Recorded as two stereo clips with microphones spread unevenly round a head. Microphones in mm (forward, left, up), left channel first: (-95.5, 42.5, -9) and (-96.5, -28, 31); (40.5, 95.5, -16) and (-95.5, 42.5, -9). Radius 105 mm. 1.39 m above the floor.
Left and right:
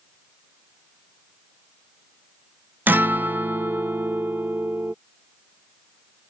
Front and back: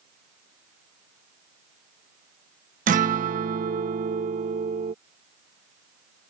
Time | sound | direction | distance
2.9 | a guitar | 130° right | ?